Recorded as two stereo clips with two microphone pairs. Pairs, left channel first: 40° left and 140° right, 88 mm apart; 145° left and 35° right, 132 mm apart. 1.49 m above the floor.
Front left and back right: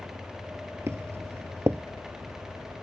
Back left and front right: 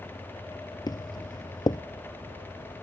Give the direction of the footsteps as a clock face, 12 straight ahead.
6 o'clock.